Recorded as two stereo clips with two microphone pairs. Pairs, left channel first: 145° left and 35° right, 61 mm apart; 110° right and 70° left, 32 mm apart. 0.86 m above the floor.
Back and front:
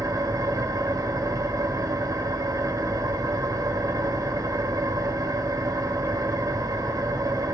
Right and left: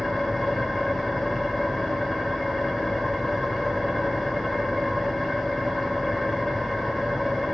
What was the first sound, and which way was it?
An engine running, 25° right.